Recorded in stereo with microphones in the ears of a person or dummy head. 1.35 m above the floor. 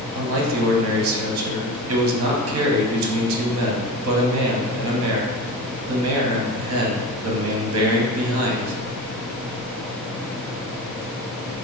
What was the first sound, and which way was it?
A man speaking, 70° right (ahead or behind).